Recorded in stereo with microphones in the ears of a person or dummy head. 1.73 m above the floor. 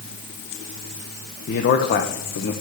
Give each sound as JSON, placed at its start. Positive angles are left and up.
{"t": 1.5, "sound": "a man speaking", "side_deg": 50, "distance_m": 0.9}